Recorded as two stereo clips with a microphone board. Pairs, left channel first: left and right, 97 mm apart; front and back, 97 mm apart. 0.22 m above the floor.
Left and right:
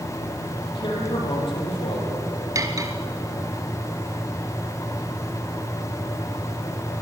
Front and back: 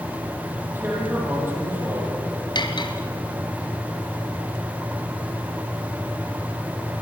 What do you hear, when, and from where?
0.7 s a man speaking: 115° left, 10 m; by 2.1 s 105° left, 9 m
2.5 s cutlery clinking: 35° right, 2.0 m